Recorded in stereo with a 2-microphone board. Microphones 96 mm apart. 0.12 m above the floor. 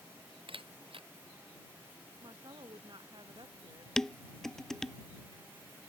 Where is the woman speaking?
50° right (ahead or behind).